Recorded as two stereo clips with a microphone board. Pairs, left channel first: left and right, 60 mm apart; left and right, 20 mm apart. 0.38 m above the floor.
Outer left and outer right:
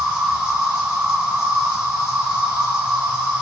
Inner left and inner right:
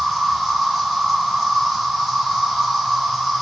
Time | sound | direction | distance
0.0 | an insect | 25° right (ahead or behind) | 2 m